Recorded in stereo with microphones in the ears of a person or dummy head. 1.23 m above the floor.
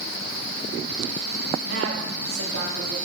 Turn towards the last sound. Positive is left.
turn(degrees=-80)